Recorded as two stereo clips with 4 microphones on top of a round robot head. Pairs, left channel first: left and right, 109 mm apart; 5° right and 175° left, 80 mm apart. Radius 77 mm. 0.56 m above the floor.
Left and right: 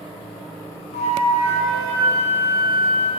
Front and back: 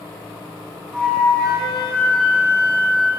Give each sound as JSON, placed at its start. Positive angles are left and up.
{"t": 0.9, "sound": "a flute", "azimuth_deg": 80, "distance_m": 1.9}